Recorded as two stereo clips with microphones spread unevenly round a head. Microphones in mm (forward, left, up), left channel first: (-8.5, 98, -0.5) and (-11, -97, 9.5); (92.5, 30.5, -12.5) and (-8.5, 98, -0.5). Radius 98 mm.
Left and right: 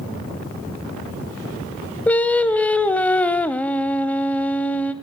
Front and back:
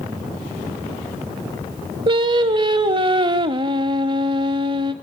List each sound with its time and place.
2.1 s singing: 170° left, 1.2 m